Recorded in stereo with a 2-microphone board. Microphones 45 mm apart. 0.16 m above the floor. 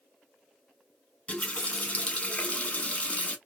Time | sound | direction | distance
1.3 | a running tap | 30° left (ahead or behind) | 0.8 m